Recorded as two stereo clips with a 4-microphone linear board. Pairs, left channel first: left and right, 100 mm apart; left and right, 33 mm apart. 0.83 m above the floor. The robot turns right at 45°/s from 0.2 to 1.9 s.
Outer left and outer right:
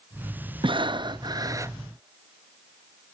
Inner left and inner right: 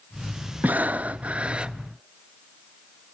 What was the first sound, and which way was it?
Breathing, 85° right.